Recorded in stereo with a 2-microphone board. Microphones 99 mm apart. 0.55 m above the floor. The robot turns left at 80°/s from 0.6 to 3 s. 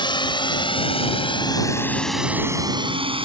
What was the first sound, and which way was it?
A drone, 55° left (ahead or behind).